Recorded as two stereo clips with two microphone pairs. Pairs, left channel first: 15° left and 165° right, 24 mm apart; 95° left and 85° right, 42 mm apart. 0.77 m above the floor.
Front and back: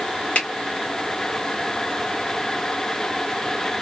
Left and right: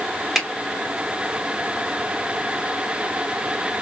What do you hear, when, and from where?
0.3 s a finger snap: straight ahead, 1.4 m